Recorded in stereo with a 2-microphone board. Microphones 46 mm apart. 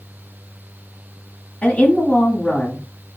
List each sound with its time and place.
1.6 s a woman speaking: 20° left (ahead or behind), 1.3 m